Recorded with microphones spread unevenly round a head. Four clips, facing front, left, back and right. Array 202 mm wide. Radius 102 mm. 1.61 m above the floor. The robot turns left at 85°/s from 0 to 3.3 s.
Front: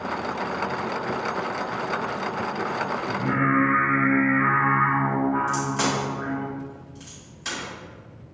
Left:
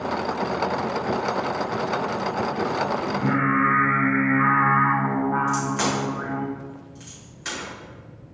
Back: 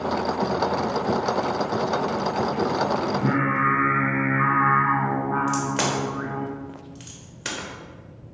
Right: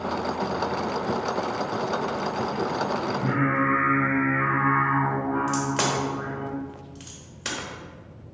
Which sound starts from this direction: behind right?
A crack, at 5.5 s.